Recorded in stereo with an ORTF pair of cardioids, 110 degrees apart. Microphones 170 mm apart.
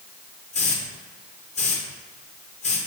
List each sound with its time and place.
0.5 s a hiss: 40° left, 1.3 m